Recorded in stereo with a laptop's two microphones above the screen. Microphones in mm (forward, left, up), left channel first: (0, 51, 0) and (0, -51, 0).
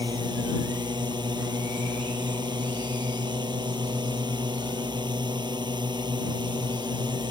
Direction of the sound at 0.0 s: 50° right (ahead or behind).